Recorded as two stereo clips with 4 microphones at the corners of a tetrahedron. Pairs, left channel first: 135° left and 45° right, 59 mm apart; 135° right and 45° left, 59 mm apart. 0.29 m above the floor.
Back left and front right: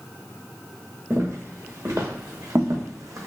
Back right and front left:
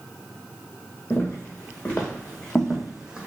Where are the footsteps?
80° right, 1.8 m; by 3.3 s 20° right, 0.7 m.